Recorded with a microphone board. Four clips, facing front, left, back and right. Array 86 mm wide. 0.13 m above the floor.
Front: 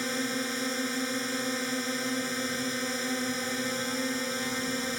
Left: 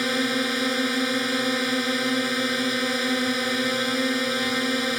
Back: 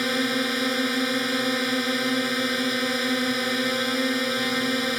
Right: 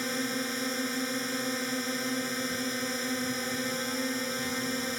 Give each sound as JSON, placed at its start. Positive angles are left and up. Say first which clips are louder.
{"t": 0.0, "sound": "a drone", "louder": "left 8 dB, back 7 dB", "azimuth_deg": 130}